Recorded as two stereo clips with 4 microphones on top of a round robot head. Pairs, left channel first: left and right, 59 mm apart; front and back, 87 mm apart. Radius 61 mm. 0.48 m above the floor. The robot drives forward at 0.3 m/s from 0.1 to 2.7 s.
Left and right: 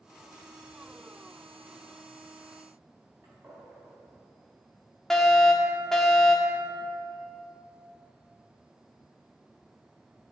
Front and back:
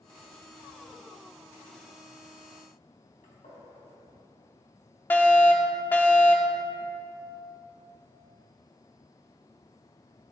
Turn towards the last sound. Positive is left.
turn(degrees=15)